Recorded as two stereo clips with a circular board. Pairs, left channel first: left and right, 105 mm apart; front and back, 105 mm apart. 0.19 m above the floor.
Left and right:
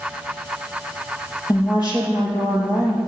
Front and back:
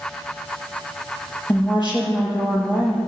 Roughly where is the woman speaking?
Ahead left.